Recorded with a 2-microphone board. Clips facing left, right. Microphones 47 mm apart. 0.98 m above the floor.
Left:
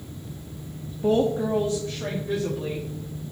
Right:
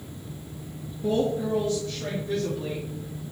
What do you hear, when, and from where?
1.0 s a woman speaking: 70° left (ahead or behind), 1.1 m; by 2.9 s 15° left (ahead or behind), 2.5 m